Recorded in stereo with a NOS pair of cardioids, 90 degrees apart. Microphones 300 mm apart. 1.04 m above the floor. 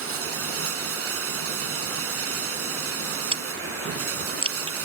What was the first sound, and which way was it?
Running water, 50° right.